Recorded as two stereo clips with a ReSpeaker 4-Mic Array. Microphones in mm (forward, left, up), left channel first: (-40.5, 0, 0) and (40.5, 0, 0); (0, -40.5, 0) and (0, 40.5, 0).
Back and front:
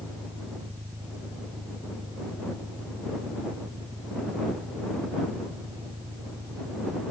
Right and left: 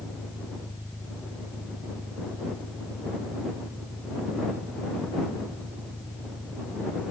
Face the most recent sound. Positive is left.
turn(degrees=0)